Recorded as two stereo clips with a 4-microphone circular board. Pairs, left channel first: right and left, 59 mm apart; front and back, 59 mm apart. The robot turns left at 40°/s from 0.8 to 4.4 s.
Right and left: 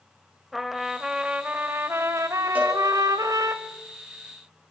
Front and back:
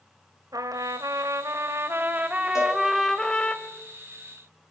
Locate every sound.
0.5 s a trumpet: 175° left, 1.5 m; by 3.5 s 65° left, 1.5 m
2.5 s a cowbell: 25° left, 5 m; by 2.8 s 15° left, 5 m